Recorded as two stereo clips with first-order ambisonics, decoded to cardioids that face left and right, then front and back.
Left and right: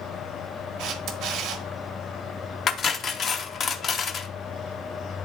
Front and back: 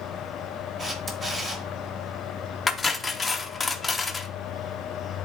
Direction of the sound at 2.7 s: 70° left.